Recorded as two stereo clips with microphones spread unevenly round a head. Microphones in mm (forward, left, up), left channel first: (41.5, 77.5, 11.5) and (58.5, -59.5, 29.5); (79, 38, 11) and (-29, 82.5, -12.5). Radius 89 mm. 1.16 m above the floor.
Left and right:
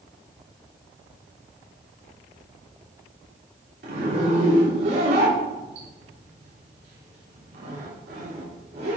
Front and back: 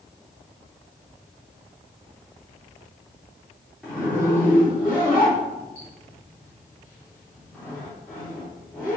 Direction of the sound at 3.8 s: 110° right.